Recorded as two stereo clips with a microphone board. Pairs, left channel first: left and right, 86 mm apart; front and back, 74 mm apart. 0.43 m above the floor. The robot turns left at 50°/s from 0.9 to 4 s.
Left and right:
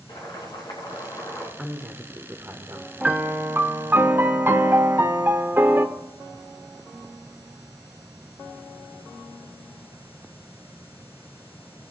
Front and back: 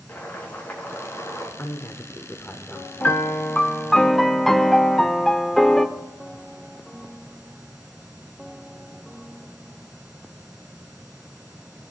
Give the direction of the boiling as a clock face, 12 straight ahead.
10 o'clock.